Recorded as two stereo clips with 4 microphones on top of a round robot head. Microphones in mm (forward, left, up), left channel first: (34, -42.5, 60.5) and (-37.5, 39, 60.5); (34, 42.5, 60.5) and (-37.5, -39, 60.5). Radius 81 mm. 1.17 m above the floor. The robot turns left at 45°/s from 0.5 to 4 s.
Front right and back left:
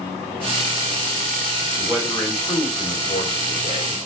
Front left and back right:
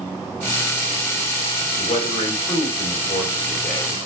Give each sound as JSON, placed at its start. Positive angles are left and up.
{"t": 1.8, "sound": "a man speaking", "azimuth_deg": 45, "distance_m": 4.0}